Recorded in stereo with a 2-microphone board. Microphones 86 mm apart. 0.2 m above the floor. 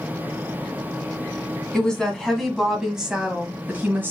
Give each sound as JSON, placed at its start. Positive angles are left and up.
{"t": 1.7, "sound": "a woman speaking", "side_deg": 10, "distance_m": 1.7}